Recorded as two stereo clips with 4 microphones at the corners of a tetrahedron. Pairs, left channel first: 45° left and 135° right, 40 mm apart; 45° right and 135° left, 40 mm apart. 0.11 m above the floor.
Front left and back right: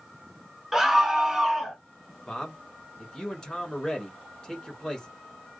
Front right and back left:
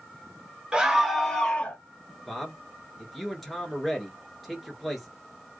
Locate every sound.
0.7 s a scream: 155° left, 1.3 m; by 1.8 s 60° right, 1.4 m
2.3 s a man speaking: 45° left, 1.8 m